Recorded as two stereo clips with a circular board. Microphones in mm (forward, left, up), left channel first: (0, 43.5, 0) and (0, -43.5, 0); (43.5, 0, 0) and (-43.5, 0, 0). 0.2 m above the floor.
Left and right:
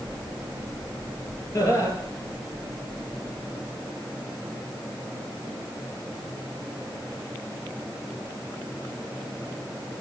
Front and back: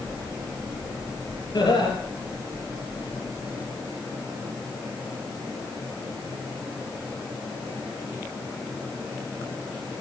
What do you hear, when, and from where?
1.5 s laughter: 40° left, 3.5 m